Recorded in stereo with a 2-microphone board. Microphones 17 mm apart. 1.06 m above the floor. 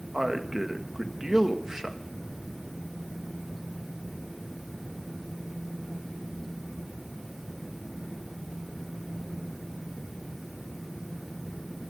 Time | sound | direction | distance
0.1 | a man speaking | 35° right (ahead or behind) | 1.7 m